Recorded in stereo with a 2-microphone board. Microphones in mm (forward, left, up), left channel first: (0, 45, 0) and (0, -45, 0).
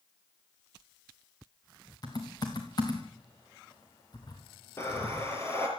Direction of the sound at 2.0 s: 45° left (ahead or behind).